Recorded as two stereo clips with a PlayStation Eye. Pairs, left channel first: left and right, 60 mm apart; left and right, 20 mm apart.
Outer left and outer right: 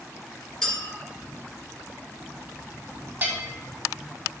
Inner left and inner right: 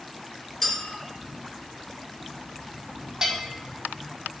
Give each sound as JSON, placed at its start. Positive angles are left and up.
{"t": 0.6, "sound": "a clink", "side_deg": 10, "distance_m": 2.5}
{"t": 3.2, "sound": "a bell", "side_deg": -30, "distance_m": 1.6}